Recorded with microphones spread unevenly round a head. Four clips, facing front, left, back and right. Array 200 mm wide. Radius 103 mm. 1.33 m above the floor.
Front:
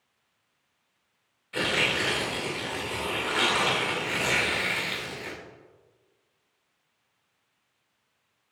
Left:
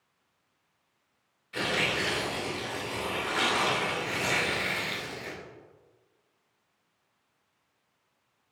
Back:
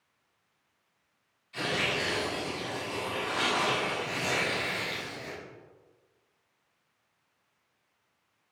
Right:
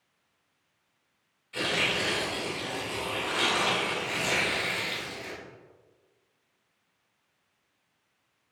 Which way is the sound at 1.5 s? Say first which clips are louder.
Even, front 3 dB; 10° left.